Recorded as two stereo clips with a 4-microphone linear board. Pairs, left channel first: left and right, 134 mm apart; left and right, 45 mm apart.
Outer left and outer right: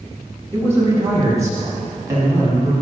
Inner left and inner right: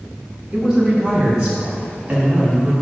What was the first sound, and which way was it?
A man speaking, 20° right (ahead or behind).